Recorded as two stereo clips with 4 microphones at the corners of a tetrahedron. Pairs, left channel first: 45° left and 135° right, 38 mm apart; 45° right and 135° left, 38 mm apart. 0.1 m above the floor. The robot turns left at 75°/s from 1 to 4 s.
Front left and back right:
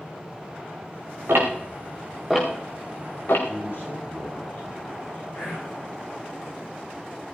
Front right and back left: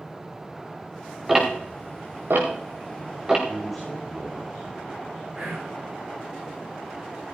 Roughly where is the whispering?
Ahead left.